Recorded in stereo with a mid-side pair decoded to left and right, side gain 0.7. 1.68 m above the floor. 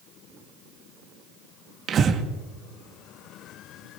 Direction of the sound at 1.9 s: 35° right.